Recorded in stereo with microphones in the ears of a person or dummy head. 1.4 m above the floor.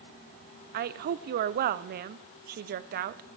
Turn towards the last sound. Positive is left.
turn(degrees=-50)  # may be behind; listen again after turning